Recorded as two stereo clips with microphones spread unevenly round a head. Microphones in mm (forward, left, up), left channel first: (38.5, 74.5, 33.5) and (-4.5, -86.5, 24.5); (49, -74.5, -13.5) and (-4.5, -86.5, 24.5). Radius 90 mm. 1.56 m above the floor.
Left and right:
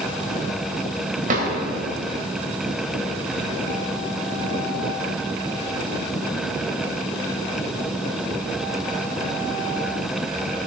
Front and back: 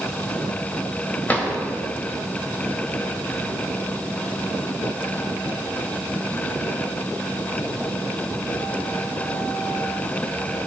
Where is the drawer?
65° right, 3.5 m.